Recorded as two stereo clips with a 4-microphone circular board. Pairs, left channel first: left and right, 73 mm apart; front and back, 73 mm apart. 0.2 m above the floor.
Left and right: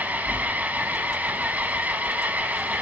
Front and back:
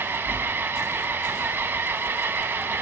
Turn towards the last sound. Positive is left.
turn(degrees=-140)